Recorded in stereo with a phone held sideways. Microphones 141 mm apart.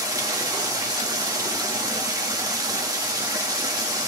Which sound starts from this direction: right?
Running water, at 0.0 s.